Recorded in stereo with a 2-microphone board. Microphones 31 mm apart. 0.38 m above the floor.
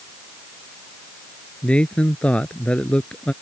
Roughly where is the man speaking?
Left.